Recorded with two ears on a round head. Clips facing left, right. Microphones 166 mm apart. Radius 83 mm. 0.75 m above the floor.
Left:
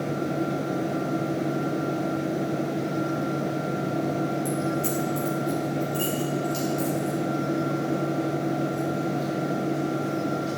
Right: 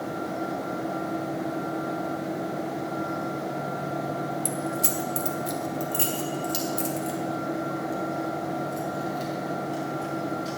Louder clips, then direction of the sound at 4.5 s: Left 4 dB; 45° right (ahead or behind).